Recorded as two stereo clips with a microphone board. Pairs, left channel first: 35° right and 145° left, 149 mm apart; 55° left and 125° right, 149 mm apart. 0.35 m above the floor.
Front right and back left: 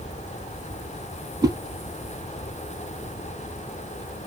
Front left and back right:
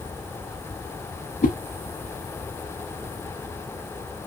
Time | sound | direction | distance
1.4 | a whoosh | 80° left | 0.6 m